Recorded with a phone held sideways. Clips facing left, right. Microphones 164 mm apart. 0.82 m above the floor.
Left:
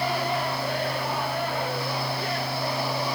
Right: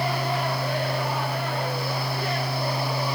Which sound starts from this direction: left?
A fan, at 0.0 s.